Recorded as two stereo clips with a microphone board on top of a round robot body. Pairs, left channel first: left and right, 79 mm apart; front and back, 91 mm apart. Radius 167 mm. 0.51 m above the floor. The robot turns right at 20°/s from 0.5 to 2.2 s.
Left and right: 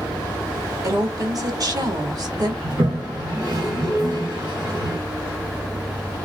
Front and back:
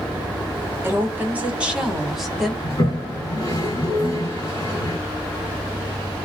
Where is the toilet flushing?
50° right, 1.6 m.